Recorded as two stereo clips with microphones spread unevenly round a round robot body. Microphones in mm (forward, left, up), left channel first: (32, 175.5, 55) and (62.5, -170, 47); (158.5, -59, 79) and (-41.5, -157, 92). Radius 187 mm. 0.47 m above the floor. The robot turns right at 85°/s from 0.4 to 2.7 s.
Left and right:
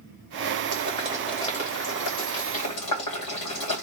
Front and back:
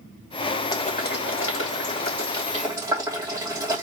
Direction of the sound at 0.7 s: 45° right.